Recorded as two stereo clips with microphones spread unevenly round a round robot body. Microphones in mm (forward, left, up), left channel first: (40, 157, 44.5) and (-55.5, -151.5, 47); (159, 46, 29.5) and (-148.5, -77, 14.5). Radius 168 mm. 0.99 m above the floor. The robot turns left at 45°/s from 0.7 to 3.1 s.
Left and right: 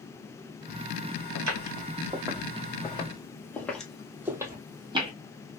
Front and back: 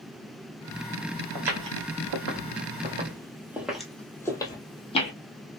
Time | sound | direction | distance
1.4 | footsteps | 145° right | 1.7 m